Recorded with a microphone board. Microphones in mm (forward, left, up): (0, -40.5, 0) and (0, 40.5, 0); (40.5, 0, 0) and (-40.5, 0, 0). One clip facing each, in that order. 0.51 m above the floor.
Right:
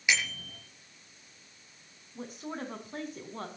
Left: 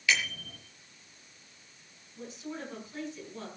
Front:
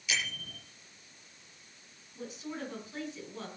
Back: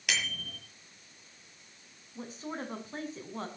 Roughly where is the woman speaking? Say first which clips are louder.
Right 2 dB, back 1 dB; behind right.